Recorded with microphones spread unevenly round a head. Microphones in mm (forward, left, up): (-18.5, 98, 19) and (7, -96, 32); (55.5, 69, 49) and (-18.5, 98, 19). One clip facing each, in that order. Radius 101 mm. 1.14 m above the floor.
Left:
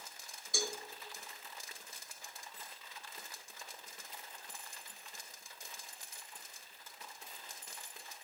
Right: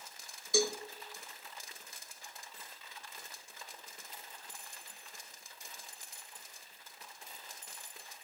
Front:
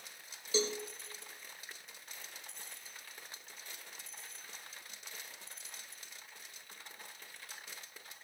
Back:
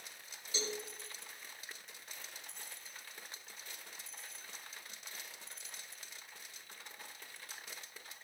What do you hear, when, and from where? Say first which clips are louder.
0.5 s a cowbell: right 9 dB, front 7 dB; 65° right, 1.2 m